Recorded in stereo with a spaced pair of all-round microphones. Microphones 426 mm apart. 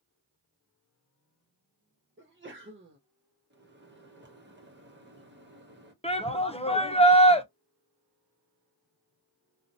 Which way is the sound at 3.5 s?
25° right (ahead or behind).